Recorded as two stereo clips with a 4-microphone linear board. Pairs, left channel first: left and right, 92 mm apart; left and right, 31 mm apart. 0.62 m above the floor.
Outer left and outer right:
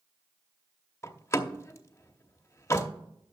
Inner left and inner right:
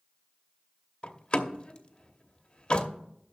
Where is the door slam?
30° left (ahead or behind), 0.8 m.